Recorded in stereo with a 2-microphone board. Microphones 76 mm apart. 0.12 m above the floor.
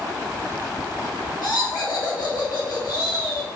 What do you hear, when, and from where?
1.4 s laughter: 70° left (ahead or behind), 4.5 m